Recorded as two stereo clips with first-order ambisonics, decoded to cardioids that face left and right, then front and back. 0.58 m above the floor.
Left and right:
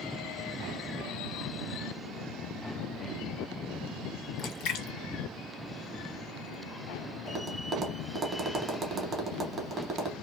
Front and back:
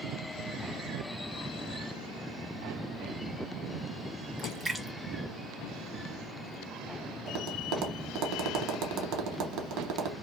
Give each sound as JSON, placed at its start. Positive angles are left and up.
{"t": 4.4, "sound": "a splash", "azimuth_deg": 105, "distance_m": 0.5}
{"t": 7.3, "sound": "tapping", "azimuth_deg": -160, "distance_m": 0.6}